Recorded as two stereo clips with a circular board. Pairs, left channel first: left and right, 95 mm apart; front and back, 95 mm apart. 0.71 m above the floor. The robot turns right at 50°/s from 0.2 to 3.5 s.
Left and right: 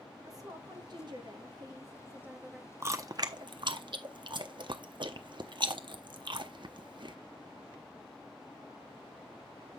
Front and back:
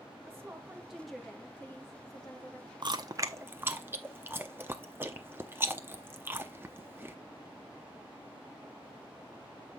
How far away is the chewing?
About 0.7 m.